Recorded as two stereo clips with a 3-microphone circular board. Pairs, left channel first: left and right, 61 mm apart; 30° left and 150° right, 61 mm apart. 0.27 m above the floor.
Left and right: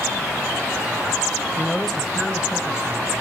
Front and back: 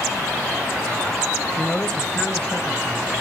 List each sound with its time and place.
1.6 s a man speaking: 90° left, 0.9 m; by 3.1 s 35° right, 1.8 m